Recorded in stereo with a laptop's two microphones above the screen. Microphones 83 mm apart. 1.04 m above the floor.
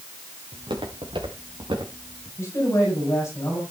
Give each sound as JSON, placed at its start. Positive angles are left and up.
{"t": 0.5, "sound": "footsteps", "side_deg": -80, "distance_m": 5.0}
{"t": 2.4, "sound": "a man speaking", "side_deg": 35, "distance_m": 5.5}